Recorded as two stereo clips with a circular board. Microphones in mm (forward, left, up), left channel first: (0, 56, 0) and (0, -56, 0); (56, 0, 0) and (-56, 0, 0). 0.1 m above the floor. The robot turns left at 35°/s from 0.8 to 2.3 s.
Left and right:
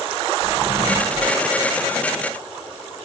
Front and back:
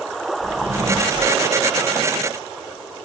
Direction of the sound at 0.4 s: 165° left.